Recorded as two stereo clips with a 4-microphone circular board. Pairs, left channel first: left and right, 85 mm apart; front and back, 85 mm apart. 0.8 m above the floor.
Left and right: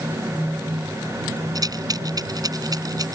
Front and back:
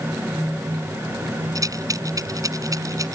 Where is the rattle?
135° right.